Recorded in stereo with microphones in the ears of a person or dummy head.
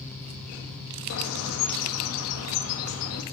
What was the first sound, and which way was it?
A bird, 80° left.